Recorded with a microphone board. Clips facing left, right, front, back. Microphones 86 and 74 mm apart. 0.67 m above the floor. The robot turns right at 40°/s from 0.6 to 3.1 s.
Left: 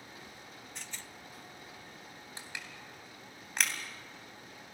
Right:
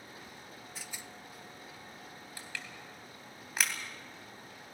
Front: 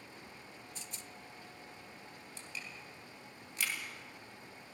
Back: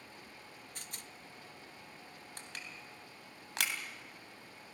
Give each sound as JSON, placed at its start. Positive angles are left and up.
{"t": 0.8, "sound": "a rattle", "azimuth_deg": -175, "distance_m": 0.5}
{"t": 2.4, "sound": "crushing", "azimuth_deg": 155, "distance_m": 3.0}